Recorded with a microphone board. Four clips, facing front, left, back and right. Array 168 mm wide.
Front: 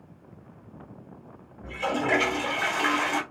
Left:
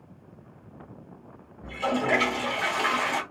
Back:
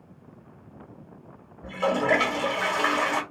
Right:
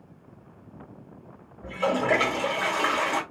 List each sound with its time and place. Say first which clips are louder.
1.6 s a toilet flushing: right 2 dB, back 4 dB; 135° right, 1.8 m